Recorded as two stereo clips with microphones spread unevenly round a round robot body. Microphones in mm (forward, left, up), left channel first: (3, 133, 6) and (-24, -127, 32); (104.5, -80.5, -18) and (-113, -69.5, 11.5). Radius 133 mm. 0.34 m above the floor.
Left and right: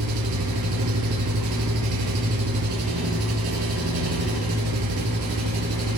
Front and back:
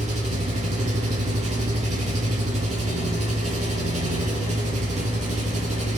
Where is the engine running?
125° right, 3.5 m.